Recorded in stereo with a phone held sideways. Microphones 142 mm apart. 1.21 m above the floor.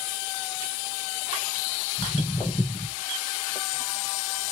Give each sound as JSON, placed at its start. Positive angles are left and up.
{"t": 2.0, "sound": "footsteps", "side_deg": 15, "distance_m": 1.7}